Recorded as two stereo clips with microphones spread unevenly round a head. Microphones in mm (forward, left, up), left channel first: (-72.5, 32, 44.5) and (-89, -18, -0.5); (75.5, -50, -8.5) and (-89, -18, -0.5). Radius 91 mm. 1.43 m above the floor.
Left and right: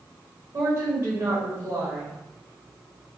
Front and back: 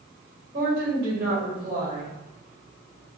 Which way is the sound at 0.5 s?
145° right.